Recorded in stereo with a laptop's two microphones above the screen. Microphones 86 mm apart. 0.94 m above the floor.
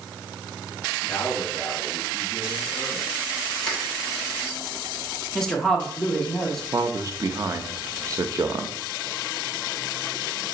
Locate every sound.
1.0 s a man speaking: 30° left (ahead or behind), 1.7 m
3.6 s crushing: 5° left (ahead or behind), 1.0 m
5.3 s a woman speaking: 5° left (ahead or behind), 0.7 m
6.7 s a man speaking: 35° right (ahead or behind), 0.5 m